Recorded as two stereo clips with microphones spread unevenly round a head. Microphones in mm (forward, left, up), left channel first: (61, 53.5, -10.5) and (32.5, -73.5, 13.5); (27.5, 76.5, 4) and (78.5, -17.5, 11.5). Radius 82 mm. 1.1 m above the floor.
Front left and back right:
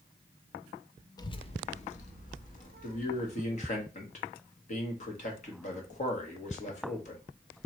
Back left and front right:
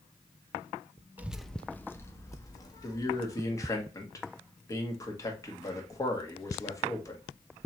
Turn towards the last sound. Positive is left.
turn(degrees=60)